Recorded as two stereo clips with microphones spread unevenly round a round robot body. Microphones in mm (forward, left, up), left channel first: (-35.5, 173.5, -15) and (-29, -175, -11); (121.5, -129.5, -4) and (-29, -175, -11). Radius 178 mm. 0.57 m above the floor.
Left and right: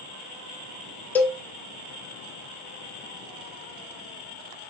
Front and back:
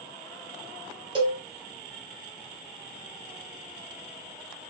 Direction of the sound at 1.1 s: 170° left.